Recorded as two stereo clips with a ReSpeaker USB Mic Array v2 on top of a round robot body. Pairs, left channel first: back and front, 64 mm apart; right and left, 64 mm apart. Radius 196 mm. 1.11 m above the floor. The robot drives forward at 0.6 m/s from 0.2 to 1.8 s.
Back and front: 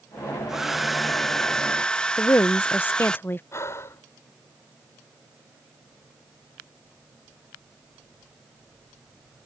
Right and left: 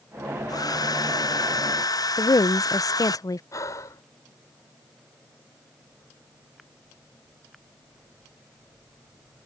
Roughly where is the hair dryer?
Right.